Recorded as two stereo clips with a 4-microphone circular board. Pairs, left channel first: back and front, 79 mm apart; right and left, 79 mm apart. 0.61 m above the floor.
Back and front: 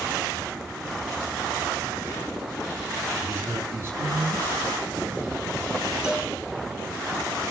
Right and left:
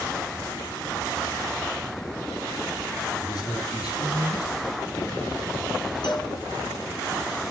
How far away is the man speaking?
About 10 m.